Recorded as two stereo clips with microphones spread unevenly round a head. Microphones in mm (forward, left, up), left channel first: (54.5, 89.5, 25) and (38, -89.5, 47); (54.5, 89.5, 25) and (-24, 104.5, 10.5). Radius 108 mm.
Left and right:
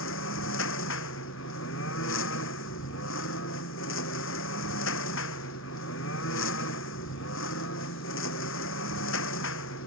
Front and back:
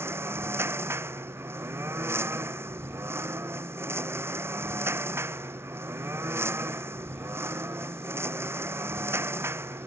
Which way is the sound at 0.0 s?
110° left.